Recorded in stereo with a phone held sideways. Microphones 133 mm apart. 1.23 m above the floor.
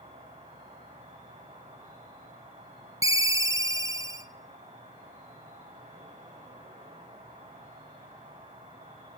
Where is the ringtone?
25° right (ahead or behind), 0.5 m.